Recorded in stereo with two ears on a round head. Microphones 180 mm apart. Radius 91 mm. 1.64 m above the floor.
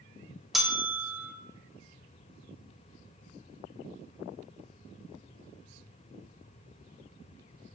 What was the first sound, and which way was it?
A bell, centre (ahead or behind).